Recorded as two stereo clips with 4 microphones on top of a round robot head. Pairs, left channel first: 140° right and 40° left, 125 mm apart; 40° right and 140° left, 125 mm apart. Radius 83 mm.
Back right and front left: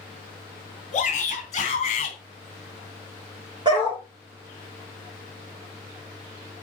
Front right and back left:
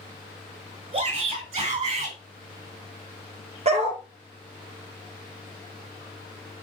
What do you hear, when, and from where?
0.9 s a shout: 175° right, 4.5 m; by 2.2 s 175° left, 4 m
3.6 s a dog barking: 100° left, 3.5 m